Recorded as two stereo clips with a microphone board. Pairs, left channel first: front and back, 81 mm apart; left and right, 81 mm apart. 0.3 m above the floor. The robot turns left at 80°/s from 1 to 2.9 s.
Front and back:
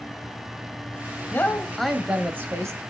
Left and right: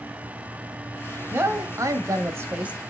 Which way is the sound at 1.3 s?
45° right.